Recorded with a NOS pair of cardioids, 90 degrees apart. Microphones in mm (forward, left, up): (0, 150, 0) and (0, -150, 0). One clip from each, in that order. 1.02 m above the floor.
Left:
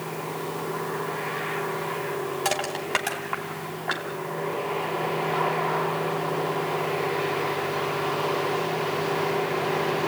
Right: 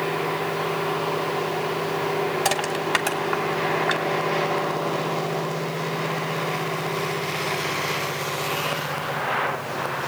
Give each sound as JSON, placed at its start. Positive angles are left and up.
{"t": 2.5, "sound": "crushing", "azimuth_deg": -25, "distance_m": 3.0}